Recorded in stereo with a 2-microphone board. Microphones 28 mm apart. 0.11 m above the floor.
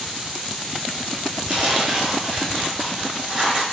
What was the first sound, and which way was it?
Tearing paper, 35° right (ahead or behind).